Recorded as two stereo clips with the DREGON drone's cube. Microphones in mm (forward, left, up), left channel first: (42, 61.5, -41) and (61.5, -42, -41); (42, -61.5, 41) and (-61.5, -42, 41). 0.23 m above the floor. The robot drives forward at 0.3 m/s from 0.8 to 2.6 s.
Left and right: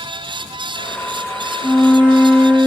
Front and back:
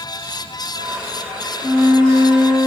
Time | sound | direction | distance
1.6 | a flute | straight behind | 1.2 m